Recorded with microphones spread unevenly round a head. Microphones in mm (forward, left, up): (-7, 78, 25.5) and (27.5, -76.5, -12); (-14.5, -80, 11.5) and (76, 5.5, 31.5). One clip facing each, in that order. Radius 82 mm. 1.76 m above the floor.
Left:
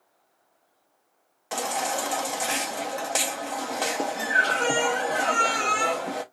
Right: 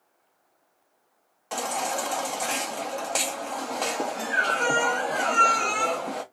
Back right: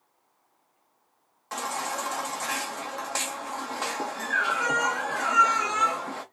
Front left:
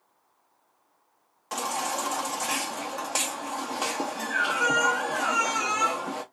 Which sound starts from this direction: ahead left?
A baby crying, at 1.5 s.